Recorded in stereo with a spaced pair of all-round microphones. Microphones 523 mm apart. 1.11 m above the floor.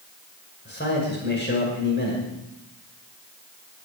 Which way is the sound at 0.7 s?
20° left (ahead or behind).